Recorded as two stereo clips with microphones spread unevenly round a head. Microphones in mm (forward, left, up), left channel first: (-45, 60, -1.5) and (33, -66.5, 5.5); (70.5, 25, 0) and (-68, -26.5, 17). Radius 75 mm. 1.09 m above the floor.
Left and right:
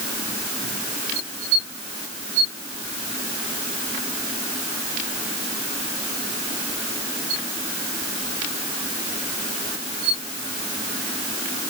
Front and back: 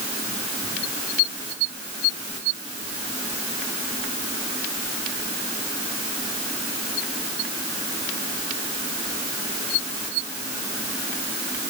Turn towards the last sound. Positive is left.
No sound to turn to.